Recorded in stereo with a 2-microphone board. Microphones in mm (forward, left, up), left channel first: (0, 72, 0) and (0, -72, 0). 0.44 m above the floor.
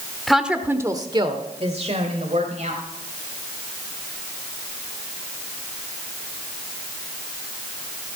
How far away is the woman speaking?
About 1.2 m.